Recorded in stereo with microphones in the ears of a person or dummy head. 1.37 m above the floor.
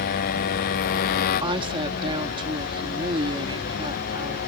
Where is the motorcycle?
50° left (ahead or behind).